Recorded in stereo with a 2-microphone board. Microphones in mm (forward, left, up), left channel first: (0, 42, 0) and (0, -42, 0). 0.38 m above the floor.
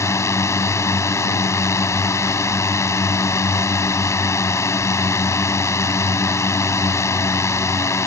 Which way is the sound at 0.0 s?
35° left (ahead or behind).